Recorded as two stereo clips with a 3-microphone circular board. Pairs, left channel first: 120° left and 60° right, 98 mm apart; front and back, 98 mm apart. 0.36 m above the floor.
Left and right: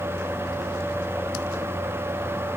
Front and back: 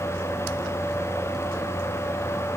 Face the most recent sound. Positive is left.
No sound to turn to.